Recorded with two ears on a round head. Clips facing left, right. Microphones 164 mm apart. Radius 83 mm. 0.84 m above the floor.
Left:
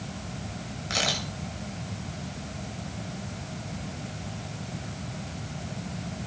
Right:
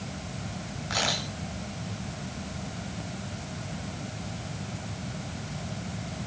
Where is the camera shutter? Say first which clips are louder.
Even; 30° left (ahead or behind), 7 m.